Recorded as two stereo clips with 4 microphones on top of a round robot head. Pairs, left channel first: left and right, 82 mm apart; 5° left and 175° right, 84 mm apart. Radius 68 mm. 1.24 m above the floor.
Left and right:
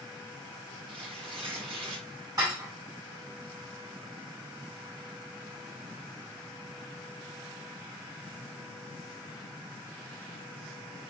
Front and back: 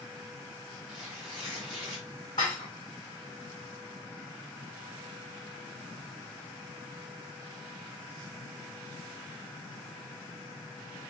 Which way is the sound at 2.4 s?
45° right.